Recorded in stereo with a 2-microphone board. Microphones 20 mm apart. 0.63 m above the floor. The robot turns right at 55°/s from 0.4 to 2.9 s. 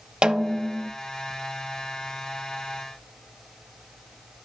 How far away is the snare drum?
About 0.6 m.